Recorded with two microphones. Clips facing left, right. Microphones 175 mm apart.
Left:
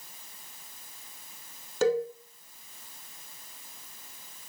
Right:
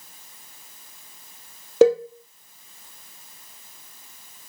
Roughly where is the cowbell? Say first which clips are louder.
Right 9 dB; right.